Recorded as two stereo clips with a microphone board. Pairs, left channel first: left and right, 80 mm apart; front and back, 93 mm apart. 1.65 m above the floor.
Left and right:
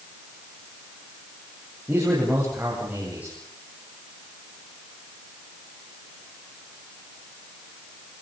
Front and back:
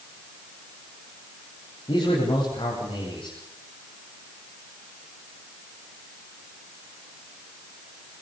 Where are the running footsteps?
No running footsteps in this recording.